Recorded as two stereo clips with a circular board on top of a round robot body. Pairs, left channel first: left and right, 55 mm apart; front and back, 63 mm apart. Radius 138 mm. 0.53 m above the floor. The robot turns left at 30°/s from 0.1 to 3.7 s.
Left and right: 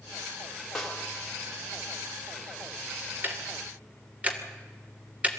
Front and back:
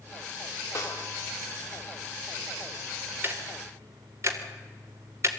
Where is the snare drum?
10° left, 3 m; by 1.1 s straight ahead, 3 m.